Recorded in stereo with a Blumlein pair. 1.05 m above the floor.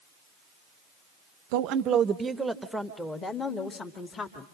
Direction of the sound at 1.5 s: 45° right.